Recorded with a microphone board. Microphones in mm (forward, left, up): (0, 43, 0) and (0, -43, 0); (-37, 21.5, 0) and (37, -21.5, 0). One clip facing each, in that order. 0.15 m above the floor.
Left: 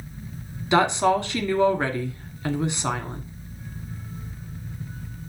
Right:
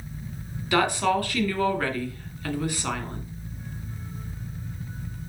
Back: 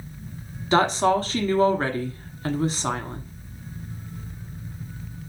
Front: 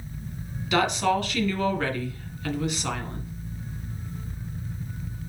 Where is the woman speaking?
140° left, 1.2 m.